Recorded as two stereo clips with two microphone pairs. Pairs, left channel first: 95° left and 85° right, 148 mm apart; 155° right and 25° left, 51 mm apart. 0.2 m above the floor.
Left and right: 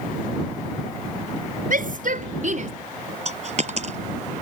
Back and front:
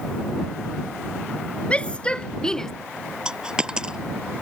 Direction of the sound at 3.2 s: 50° right.